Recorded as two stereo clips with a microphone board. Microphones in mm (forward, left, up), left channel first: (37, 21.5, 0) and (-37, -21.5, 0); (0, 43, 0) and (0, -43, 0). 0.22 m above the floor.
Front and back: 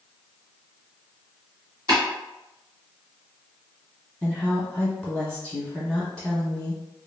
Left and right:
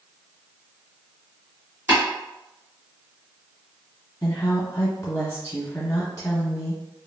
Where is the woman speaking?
110° left, 1.1 m.